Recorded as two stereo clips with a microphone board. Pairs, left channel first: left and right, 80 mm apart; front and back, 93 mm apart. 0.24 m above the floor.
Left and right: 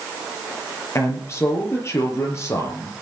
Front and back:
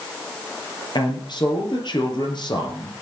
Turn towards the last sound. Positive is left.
turn(degrees=35)